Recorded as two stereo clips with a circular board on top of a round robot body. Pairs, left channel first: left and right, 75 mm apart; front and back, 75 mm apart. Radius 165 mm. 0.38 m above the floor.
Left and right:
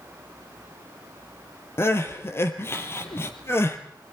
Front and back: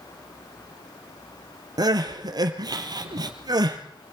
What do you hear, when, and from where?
1.8 s crying: 150° left, 3 m